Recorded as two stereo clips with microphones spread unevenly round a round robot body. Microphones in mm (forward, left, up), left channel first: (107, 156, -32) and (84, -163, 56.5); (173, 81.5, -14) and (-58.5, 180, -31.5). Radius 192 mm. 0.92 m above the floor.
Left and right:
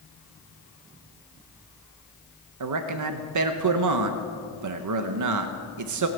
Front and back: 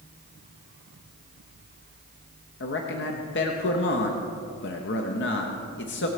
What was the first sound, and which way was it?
A man speaking, 65° right.